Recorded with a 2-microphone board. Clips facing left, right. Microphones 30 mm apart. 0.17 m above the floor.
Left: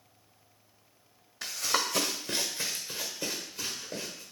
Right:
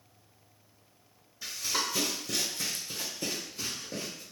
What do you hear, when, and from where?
1.4 s running footsteps: 75° left (ahead or behind), 0.5 m; by 4.2 s 10° left (ahead or behind), 1.9 m